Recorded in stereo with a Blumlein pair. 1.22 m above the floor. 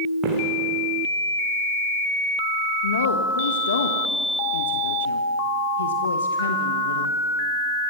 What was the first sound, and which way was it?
Footsteps, 25° right.